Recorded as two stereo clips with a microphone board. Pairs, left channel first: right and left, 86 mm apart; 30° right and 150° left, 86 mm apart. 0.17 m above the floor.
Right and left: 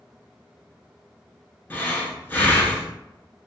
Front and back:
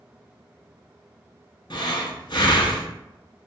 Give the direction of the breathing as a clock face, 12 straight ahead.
1 o'clock.